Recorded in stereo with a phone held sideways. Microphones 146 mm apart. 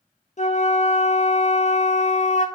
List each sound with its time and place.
0.4 s a flute: 55° left (ahead or behind), 0.7 m